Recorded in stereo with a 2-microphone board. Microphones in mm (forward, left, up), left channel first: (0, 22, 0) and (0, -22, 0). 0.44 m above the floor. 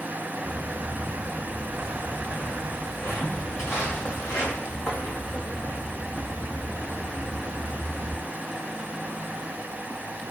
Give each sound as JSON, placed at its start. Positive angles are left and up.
{"t": 0.4, "sound": "footsteps", "side_deg": 80, "distance_m": 7.0}